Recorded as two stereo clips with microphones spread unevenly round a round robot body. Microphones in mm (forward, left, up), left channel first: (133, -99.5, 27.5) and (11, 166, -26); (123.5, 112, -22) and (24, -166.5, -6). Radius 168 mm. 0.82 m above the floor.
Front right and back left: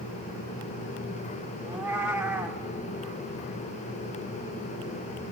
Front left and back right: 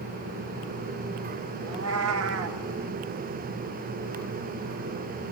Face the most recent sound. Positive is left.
turn(degrees=-155)